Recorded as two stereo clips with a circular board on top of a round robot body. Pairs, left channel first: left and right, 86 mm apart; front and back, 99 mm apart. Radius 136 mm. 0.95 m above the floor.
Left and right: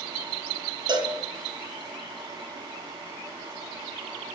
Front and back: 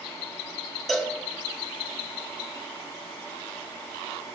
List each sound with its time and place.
0.9 s a cowbell: 90° right, 1.2 m